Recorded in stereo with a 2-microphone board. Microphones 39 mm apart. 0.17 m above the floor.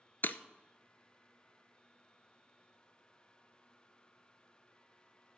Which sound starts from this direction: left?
Breaking glass, at 0.2 s.